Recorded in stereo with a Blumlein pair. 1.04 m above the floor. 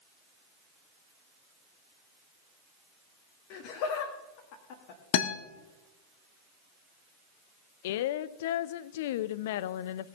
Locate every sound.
3.5 s laughter: 45° left, 1.7 m
5.1 s a guitar: 50° left, 1.2 m
7.8 s a woman speaking: 55° left, 0.5 m